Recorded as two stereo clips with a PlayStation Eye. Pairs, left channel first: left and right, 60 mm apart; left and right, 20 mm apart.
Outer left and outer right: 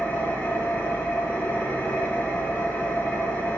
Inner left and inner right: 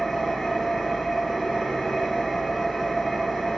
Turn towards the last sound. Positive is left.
turn(degrees=30)  # may be behind; listen again after turning